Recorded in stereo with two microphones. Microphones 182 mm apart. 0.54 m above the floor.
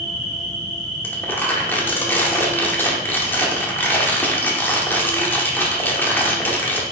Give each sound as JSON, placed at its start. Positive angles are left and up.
{"t": 0.0, "sound": "an insect", "side_deg": 40, "distance_m": 3.0}
{"t": 1.0, "sound": "crumpling", "side_deg": 10, "distance_m": 1.4}